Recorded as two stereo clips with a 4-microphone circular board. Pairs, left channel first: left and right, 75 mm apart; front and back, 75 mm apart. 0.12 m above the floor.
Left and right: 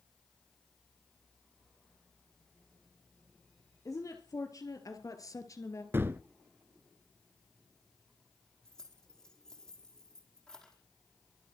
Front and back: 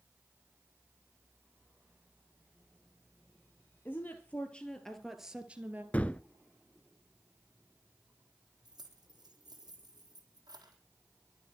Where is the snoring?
No snoring in this recording.